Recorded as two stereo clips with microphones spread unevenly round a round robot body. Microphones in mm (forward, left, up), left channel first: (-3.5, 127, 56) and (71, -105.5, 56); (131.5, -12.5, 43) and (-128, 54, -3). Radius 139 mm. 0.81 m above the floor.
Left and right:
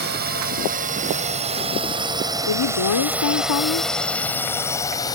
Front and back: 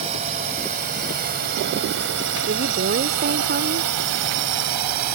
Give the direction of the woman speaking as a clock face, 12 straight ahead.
8 o'clock.